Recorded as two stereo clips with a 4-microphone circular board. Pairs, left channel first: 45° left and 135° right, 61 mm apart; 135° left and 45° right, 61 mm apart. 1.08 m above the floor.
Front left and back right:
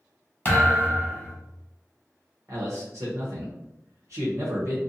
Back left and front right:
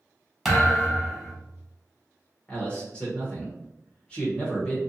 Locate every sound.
0.5 s a thud: 45° left, 1.0 m
2.5 s a man speaking: 155° right, 0.8 m